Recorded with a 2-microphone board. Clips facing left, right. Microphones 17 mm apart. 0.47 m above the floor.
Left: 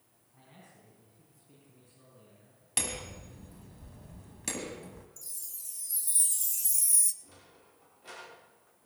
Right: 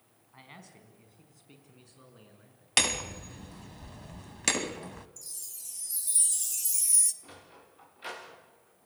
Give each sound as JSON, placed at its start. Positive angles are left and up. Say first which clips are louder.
{"t": 0.3, "sound": "a man speaking", "louder": "right 6 dB", "side_deg": -60, "distance_m": 4.5}
{"t": 2.8, "sound": "hammering", "louder": "right 9 dB", "side_deg": -55, "distance_m": 1.2}
{"t": 5.2, "sound": "a chime", "louder": "right 2 dB", "side_deg": -20, "distance_m": 1.4}
{"t": 7.2, "sound": "a sliding door", "louder": "right 6 dB", "side_deg": -75, "distance_m": 7.5}